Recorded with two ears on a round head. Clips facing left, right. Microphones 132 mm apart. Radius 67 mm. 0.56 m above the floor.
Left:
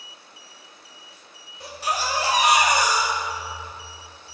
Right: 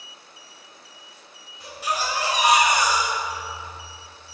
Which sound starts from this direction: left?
A baby crying, at 1.6 s.